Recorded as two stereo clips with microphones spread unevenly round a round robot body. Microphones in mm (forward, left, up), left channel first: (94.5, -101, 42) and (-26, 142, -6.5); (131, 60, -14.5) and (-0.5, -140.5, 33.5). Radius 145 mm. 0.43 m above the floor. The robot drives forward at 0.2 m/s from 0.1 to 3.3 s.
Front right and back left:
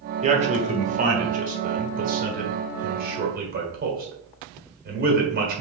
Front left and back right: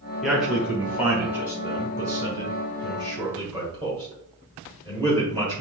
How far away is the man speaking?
About 0.9 m.